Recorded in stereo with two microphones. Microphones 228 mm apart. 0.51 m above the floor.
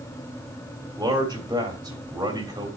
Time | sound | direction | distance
1.0 | a man speaking | 15° right (ahead or behind) | 1.5 m